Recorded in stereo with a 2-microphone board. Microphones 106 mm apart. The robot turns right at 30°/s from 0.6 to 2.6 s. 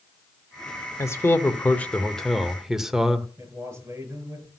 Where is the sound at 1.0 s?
135° left, 1.1 m; by 3.3 s 175° right, 1.1 m.